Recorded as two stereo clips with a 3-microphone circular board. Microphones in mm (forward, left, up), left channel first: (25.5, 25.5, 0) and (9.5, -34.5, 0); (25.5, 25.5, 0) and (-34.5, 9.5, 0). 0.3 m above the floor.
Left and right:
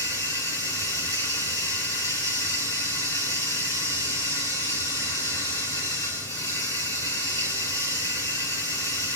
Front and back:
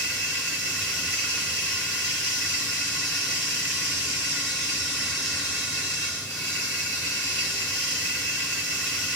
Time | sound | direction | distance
0.0 | running water | 65° left | 3.5 m